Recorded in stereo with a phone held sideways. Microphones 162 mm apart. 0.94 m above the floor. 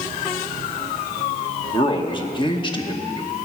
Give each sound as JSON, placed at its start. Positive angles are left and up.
{"t": 1.7, "sound": "a man speaking", "side_deg": 30, "distance_m": 1.2}